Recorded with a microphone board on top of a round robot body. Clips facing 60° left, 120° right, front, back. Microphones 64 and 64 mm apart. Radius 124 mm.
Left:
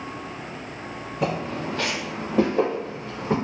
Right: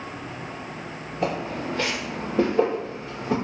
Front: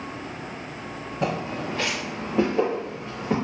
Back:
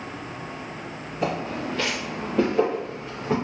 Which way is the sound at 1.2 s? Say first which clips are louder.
Even, even; 45° left.